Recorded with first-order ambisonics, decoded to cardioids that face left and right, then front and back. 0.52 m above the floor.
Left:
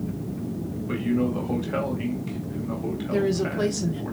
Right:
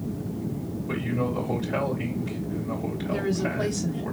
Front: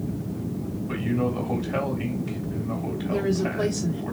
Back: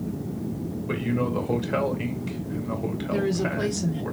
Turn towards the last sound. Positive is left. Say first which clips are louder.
# left 3 dB, front 1 dB
turn(degrees=105)